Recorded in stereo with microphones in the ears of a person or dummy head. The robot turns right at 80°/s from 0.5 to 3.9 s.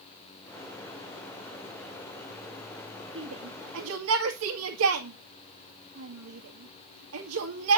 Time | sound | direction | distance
3.1 | a shout | 35° right (ahead or behind) | 2.0 m